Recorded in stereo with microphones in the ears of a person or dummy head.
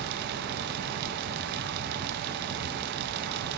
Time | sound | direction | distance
0.0 | a fan | 60° right (ahead or behind) | 0.7 m